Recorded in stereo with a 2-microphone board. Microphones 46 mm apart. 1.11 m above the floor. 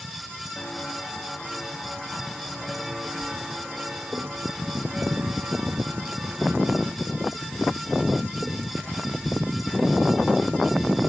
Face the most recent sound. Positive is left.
turn(degrees=-55)  # may be behind; listen again after turning